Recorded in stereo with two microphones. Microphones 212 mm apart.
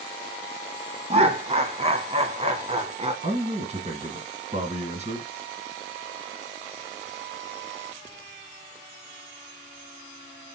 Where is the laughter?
30° right (ahead or behind), 1.3 m.